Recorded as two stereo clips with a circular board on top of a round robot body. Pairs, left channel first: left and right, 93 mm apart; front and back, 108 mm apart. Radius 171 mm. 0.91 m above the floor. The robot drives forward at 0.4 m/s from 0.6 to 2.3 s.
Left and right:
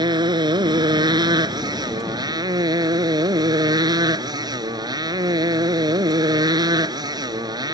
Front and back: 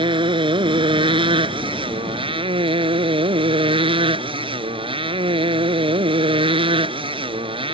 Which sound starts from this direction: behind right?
A motorcycle, at 0.0 s.